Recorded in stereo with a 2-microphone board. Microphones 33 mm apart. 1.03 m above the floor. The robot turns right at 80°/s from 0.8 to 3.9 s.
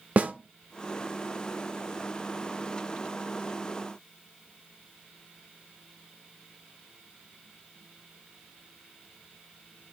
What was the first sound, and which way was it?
A snare drum, 55° right (ahead or behind).